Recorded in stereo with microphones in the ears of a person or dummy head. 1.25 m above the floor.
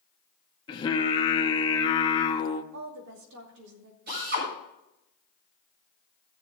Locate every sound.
0.7 s singing: 20° left (ahead or behind), 1.1 m
2.7 s a woman speaking: 55° right (ahead or behind), 2.5 m
4.1 s a drill: 35° right (ahead or behind), 7.5 m